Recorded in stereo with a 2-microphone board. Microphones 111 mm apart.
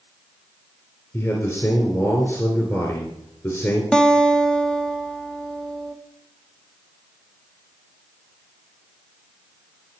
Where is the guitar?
5° left (ahead or behind), 0.9 m.